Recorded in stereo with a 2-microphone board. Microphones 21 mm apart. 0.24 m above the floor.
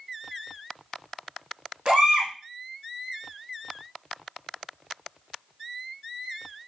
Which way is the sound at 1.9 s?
70° right (ahead or behind).